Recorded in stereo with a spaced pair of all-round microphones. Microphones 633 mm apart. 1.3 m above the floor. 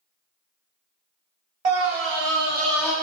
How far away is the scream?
About 0.7 m.